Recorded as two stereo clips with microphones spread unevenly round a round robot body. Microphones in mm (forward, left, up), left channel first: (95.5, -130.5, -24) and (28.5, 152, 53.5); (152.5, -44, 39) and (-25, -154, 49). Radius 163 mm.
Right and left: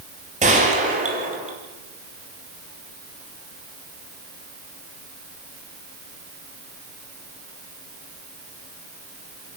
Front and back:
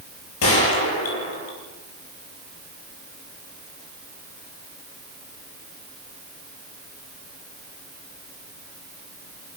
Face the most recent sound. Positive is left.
turn(degrees=35)